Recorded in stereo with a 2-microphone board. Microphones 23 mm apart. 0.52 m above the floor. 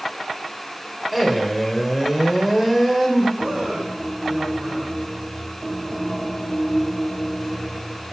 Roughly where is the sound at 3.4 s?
Right.